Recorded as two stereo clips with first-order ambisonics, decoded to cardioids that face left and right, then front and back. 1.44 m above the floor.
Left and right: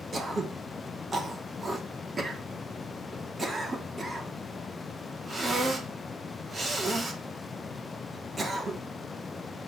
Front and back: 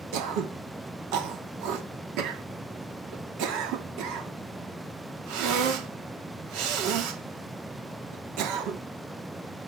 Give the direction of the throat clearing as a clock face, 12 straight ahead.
6 o'clock.